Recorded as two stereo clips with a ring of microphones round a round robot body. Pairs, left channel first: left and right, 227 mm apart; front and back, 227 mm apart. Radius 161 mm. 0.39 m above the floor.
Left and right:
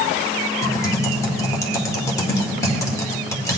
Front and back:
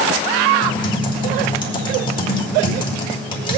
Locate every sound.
0.6 s typing on a keyboard: 35° left, 1.5 m